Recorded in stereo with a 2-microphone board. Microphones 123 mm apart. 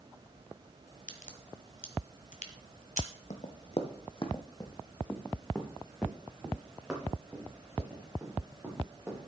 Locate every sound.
1.1 s a crack: 85° left, 1.5 m
3.3 s running footsteps: 70° left (ahead or behind), 1.6 m; by 9.3 s 15° right (ahead or behind), 6.5 m